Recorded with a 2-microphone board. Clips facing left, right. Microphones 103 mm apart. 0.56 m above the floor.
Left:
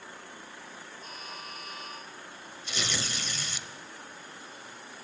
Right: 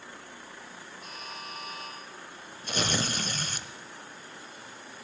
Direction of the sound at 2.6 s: 50° right (ahead or behind).